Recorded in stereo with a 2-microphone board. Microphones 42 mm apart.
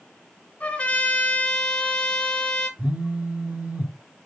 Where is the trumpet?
25° left (ahead or behind), 1.7 m.